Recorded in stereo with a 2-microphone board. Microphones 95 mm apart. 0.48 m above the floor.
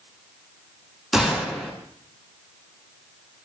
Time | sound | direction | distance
1.1 | a gunshot | centre (ahead or behind) | 6.5 m